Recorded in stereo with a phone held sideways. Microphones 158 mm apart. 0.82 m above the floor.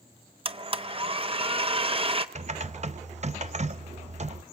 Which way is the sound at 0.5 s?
35° right (ahead or behind).